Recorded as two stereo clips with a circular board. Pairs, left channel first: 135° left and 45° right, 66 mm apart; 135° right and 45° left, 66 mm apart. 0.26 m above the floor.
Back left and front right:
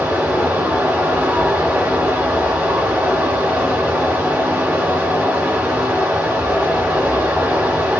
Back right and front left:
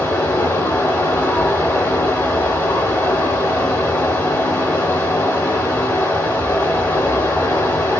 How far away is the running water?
About 1.3 m.